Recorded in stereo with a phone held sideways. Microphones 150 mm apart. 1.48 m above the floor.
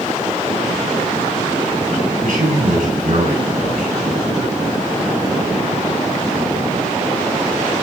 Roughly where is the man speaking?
Right.